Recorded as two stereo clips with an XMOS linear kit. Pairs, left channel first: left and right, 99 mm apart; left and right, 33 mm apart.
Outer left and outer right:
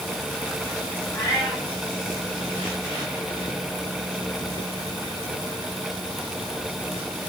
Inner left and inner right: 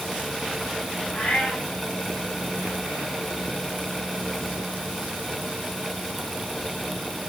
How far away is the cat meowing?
About 9 m.